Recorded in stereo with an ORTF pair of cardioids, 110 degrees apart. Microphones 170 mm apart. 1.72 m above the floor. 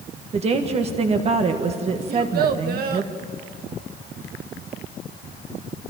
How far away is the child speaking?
About 1.9 m.